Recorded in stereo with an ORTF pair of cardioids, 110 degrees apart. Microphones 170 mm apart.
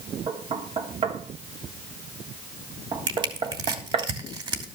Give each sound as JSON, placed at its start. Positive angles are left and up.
{"t": 0.3, "sound": "knocking", "azimuth_deg": -35, "distance_m": 2.0}
{"t": 3.1, "sound": "crushing", "azimuth_deg": -25, "distance_m": 3.0}